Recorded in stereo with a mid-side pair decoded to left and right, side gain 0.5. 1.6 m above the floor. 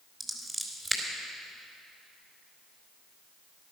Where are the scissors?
15° right, 3.5 m.